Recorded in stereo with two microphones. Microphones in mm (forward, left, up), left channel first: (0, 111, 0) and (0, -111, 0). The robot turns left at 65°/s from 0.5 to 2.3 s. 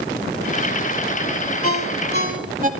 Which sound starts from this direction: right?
A ringtone, at 1.6 s.